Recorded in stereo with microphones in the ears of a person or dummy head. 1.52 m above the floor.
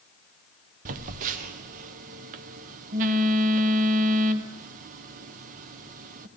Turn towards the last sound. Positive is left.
turn(degrees=-40)  # may be behind; listen again after turning